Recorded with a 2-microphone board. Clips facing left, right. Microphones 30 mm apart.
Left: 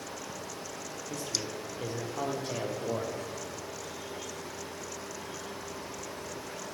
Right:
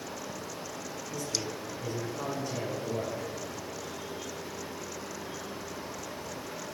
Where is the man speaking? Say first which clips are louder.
Right 1 dB; 75° left (ahead or behind), 5.5 m.